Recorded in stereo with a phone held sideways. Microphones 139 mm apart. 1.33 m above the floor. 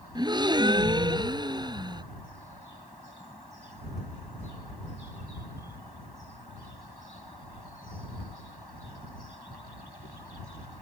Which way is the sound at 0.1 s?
30° right (ahead or behind).